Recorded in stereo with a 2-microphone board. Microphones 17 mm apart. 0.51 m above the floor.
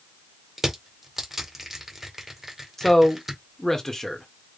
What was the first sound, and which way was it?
Crushing, 15° right (ahead or behind).